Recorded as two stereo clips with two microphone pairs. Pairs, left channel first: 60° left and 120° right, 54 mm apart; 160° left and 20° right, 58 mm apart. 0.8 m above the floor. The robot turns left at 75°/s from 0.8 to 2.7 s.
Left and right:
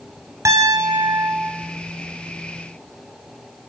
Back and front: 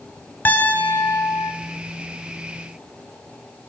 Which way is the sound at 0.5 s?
140° right.